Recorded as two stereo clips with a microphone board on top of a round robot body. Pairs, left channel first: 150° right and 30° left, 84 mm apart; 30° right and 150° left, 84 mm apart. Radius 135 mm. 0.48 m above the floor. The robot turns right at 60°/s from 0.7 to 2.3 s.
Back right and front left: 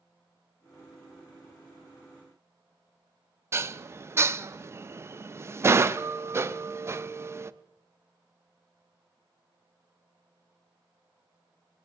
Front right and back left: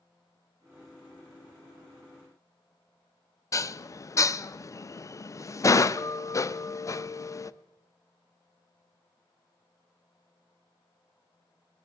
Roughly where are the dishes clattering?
Ahead.